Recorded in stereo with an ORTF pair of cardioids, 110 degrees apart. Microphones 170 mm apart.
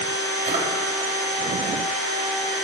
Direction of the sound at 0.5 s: 45° right.